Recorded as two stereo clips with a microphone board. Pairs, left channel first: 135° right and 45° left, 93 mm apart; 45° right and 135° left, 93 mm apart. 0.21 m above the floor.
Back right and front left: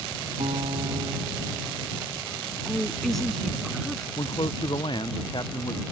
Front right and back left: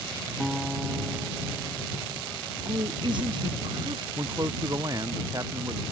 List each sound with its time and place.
0.4 s a guitar: 50° left
2.6 s a woman speaking: 140° left
4.2 s a man speaking: 170° right